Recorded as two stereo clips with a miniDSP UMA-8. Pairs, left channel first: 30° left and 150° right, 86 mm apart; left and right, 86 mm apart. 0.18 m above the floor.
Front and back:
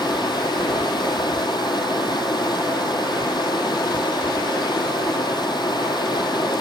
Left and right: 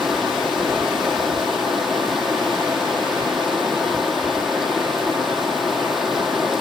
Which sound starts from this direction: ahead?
Running water, at 0.0 s.